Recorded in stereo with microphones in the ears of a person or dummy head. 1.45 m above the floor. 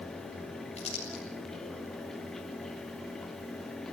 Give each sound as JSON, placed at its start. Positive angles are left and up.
{"t": 0.8, "sound": "crumpling", "side_deg": 35, "distance_m": 6.5}